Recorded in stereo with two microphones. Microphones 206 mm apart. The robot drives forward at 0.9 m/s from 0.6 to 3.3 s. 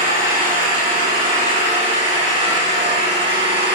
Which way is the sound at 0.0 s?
40° right (ahead or behind).